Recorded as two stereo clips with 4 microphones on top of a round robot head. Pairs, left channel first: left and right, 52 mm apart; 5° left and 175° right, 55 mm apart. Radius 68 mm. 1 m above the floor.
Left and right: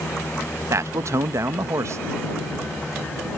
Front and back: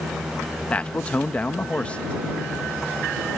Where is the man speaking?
65° right.